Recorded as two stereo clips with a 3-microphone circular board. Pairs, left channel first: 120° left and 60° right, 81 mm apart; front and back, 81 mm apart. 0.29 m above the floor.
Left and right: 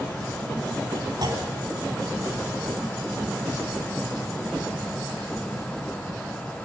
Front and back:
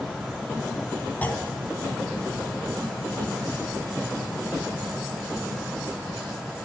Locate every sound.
1.2 s a clunk: 65° right, 3 m